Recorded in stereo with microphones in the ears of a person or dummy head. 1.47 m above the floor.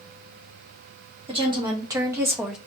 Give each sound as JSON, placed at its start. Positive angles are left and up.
{"t": 1.3, "sound": "a woman speaking", "side_deg": -25, "distance_m": 1.2}